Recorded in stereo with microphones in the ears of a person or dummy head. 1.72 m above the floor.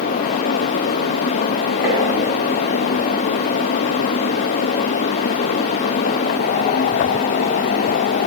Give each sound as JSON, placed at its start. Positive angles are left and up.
{"t": 1.8, "sound": "tapping", "side_deg": -15, "distance_m": 2.5}